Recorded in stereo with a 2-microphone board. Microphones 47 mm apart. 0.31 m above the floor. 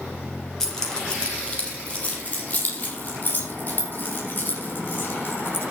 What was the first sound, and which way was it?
Keys jangling, 10° left (ahead or behind).